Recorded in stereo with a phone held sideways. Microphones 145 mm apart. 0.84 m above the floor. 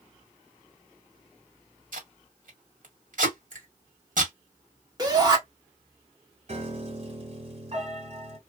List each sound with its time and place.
1.9 s tape being pulled: 65° right (ahead or behind), 1.4 m
3.5 s a finger snap: 60° right (ahead or behind), 1.3 m
5.0 s a shout: 25° right (ahead or behind), 1.6 m
6.5 s a piano: 45° right (ahead or behind), 1.4 m